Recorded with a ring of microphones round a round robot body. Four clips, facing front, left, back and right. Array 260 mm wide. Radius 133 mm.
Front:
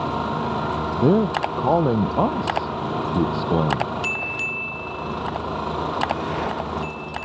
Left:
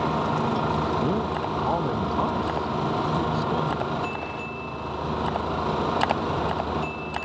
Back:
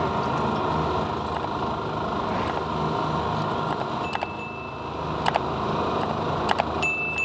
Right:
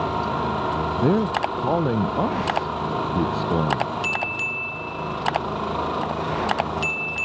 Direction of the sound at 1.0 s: 25° right.